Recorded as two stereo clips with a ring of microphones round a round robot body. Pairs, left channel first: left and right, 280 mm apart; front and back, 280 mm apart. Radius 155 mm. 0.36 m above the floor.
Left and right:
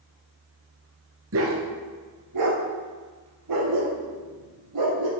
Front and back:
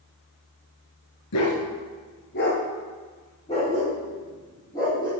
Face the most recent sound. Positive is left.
turn(degrees=-80)